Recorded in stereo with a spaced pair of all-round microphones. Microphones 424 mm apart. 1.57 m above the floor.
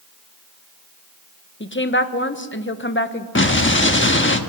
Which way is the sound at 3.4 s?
25° left (ahead or behind).